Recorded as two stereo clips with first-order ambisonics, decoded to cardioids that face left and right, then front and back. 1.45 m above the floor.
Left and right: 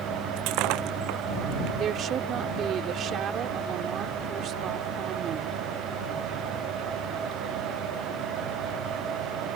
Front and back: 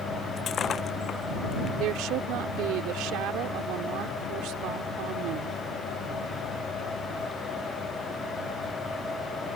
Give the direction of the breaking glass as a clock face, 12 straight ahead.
2 o'clock.